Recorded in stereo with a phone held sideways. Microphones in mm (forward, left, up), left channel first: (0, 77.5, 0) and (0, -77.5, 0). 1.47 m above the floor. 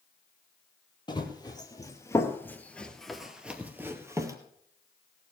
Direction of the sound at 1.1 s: 30° left (ahead or behind).